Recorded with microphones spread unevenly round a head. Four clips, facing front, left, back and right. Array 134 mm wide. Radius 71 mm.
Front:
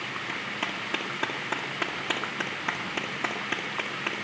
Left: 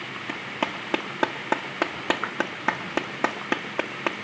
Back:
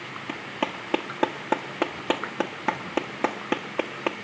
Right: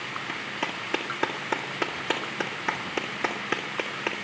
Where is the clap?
140° left, 1.7 m.